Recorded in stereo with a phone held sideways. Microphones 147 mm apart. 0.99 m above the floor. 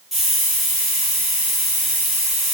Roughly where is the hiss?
Centre.